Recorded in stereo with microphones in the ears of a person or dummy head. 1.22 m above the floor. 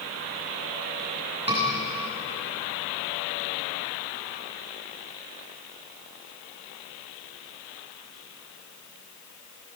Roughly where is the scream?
Right.